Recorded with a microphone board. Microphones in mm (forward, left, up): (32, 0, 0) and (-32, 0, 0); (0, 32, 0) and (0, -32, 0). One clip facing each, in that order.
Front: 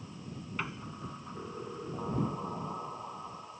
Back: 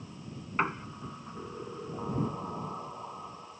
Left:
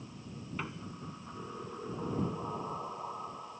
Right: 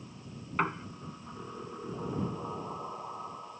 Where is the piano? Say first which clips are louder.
Back 9 dB, right 12 dB; 130° right.